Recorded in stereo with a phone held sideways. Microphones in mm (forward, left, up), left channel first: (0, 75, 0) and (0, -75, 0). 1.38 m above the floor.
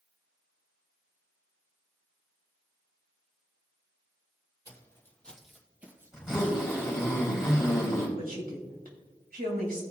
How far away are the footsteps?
About 2 m.